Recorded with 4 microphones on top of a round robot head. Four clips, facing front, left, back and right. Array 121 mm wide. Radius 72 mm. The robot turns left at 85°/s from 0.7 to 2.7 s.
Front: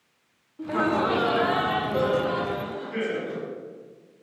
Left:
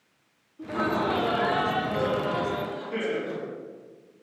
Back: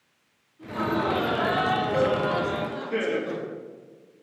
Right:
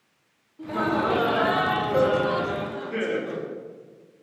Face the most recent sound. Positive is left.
turn(degrees=170)